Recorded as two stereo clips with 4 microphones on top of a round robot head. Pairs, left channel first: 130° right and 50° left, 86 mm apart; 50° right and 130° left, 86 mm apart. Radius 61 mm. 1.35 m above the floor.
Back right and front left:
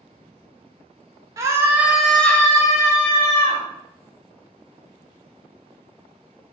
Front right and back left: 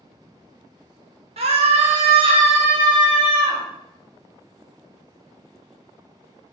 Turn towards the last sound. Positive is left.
turn(degrees=-175)